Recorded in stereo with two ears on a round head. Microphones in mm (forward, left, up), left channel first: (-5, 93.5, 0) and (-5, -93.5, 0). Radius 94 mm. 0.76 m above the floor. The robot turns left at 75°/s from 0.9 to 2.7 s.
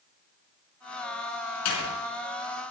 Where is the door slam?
90° left, 5 m; by 1.9 s 65° left (ahead or behind), 5 m.